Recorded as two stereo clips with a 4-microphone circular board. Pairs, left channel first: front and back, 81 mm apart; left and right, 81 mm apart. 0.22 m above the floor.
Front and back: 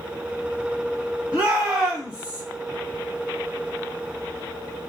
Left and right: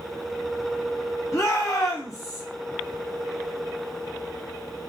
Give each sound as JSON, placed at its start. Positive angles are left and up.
{"t": 1.3, "sound": "a shout", "azimuth_deg": 110, "distance_m": 1.6}